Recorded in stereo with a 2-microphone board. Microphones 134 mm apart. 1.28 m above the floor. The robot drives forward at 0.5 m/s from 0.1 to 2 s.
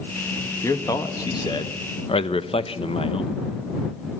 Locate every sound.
0.6 s a man speaking: 20° left (ahead or behind), 1.4 m; by 3.4 s 40° left (ahead or behind), 0.8 m